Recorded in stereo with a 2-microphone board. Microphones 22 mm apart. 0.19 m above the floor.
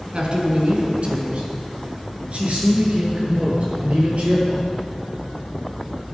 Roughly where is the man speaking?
Right.